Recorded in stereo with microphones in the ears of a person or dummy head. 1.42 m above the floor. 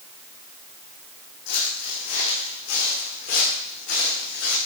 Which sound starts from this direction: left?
Footsteps, at 1.5 s.